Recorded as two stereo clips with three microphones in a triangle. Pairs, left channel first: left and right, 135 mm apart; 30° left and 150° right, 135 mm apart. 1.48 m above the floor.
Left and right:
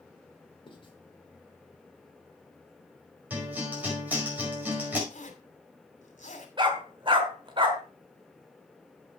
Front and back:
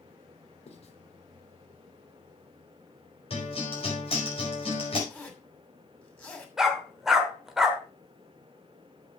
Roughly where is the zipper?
Left.